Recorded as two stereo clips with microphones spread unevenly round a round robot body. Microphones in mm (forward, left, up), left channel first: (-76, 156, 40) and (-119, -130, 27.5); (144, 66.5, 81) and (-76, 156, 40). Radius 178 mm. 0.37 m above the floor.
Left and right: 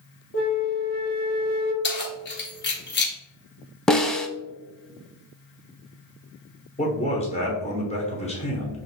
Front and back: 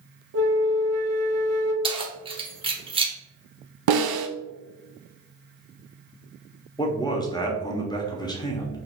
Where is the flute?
130° left, 0.8 m.